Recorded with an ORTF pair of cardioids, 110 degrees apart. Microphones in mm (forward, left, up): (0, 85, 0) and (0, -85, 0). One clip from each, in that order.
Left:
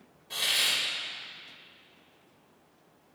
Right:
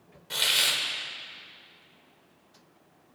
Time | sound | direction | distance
0.3 | a hiss | 50° right | 1.2 m